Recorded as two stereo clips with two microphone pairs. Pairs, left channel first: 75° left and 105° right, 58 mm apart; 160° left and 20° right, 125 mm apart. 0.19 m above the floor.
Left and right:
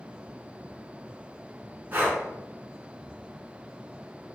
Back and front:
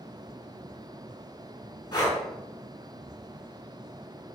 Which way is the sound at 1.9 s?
150° right.